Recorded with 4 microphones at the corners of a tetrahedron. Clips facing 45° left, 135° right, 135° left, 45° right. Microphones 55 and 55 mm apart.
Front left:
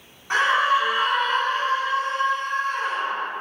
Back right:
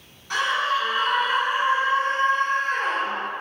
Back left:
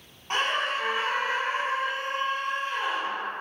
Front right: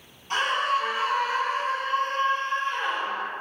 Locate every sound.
0.3 s a scream: 95° left, 1.6 m; by 3.3 s 140° right, 2 m